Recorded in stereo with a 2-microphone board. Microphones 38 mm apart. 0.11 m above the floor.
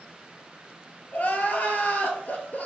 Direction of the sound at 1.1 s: 50° left (ahead or behind).